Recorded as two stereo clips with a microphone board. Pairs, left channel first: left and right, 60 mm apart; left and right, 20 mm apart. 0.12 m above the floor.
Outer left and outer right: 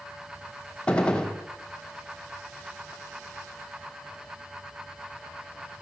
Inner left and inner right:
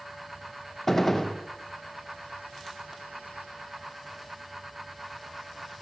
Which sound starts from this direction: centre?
A gunshot, at 0.9 s.